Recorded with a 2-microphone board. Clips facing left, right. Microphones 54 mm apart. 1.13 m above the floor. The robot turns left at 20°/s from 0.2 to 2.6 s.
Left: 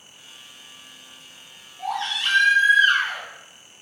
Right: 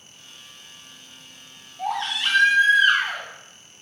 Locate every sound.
1.8 s a baby crying: 15° right (ahead or behind), 0.9 m; by 3.2 s 5° right (ahead or behind), 0.9 m